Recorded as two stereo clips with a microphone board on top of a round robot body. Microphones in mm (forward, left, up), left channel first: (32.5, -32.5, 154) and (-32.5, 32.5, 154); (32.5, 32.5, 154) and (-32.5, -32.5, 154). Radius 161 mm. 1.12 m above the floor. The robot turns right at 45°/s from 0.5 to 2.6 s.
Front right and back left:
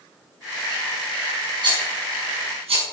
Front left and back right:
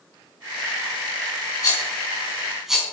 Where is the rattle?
95° left, 5 m; by 2.8 s 140° left, 5 m.